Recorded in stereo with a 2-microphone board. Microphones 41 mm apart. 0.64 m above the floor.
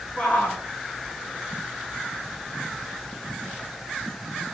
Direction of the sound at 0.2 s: 40° left (ahead or behind).